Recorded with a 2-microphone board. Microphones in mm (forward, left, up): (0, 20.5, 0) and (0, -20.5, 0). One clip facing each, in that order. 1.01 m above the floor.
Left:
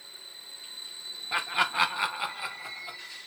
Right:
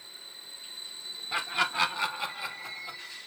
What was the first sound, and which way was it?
Laughter, 15° left (ahead or behind).